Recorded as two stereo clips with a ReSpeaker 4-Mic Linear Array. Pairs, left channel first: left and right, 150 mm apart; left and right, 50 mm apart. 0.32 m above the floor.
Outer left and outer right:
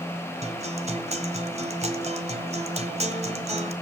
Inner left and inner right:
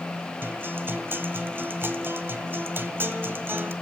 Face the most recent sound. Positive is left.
turn(degrees=-45)  # may be behind; listen again after turning